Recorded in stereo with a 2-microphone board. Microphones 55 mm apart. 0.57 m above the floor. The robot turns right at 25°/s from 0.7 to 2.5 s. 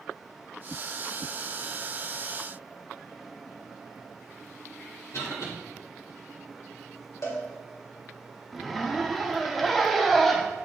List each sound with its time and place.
5.1 s a cough: 65° left (ahead or behind), 3 m
7.2 s a cowbell: 65° left (ahead or behind), 1.9 m
8.5 s a zipper: centre (ahead or behind), 0.6 m